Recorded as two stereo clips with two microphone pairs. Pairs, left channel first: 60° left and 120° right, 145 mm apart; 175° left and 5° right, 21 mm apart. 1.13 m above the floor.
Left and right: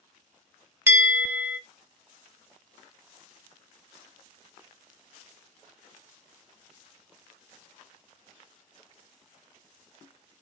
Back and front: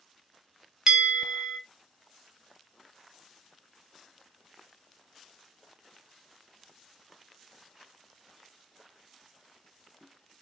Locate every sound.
0.9 s a bell: 50° right, 1.0 m